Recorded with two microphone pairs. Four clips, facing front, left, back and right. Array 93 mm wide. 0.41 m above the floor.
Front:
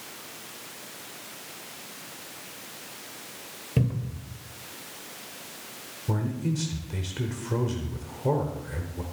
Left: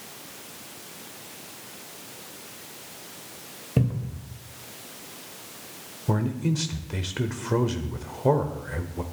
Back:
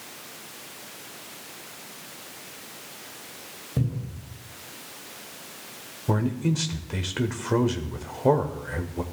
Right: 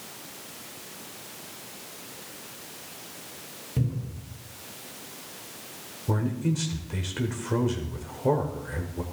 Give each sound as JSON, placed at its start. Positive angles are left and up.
{"t": 3.8, "sound": "a cupboard door", "azimuth_deg": 35, "distance_m": 1.9}
{"t": 6.1, "sound": "a man speaking", "azimuth_deg": 155, "distance_m": 1.2}